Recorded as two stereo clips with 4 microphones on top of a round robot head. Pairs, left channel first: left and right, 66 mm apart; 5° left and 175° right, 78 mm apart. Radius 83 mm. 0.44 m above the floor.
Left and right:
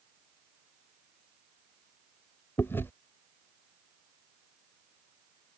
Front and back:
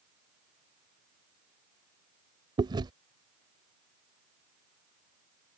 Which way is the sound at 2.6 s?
155° left.